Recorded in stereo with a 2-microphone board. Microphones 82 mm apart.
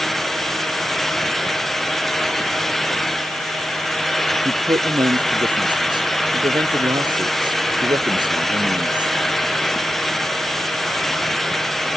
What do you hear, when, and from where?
4.5 s a man speaking: 70° right (ahead or behind)